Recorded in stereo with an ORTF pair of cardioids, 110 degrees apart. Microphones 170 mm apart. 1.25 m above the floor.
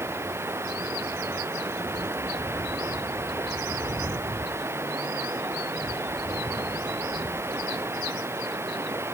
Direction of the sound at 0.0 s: 15° right.